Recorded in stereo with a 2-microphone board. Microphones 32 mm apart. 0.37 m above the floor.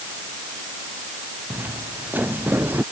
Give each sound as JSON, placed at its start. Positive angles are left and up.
{"t": 1.5, "sound": "footsteps", "side_deg": -85}